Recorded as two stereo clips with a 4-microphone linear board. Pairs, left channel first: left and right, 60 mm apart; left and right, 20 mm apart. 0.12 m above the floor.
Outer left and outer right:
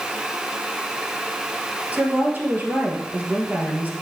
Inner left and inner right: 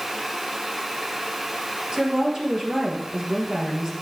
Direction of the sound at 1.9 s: 30° right (ahead or behind).